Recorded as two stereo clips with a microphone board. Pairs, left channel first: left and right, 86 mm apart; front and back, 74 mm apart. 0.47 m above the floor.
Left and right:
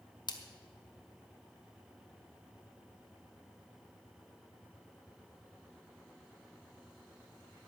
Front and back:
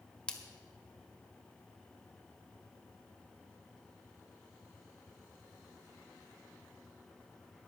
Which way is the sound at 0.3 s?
75° left.